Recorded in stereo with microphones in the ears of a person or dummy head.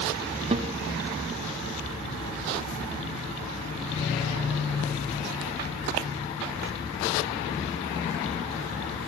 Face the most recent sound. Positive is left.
turn(degrees=-30)  # may be behind; listen again after turning